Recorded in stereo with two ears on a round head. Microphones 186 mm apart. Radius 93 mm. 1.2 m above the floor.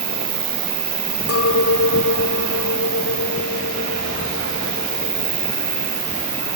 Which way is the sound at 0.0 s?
30° right (ahead or behind).